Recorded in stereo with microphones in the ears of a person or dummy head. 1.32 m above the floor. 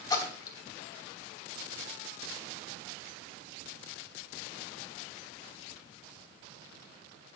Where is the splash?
20° left (ahead or behind), 2.5 m.